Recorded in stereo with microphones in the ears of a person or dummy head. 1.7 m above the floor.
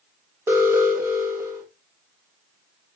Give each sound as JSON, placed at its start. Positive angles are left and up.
{"t": 0.5, "sound": "an alarm", "side_deg": -20, "distance_m": 3.0}